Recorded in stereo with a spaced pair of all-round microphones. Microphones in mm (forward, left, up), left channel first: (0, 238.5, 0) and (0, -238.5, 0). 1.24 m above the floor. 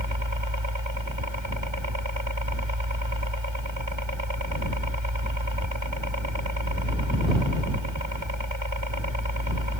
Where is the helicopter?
70° right (ahead or behind).